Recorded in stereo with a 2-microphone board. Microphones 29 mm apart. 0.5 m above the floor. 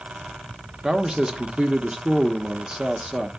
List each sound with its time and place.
0.8 s a man speaking: 25° right (ahead or behind), 0.7 m